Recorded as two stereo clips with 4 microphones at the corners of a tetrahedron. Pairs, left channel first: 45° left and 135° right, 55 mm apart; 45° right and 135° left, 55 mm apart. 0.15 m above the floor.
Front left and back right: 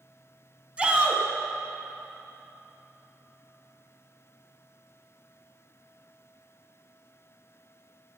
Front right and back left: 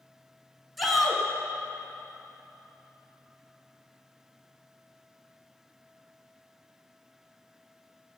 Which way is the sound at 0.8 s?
130° right.